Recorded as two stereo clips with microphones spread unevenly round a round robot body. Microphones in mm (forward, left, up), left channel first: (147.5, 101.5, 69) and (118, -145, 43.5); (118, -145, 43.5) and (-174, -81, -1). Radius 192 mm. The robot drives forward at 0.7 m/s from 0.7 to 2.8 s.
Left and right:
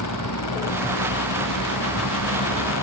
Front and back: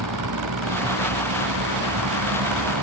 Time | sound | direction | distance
0.0 | a vehicle | 120° left | ?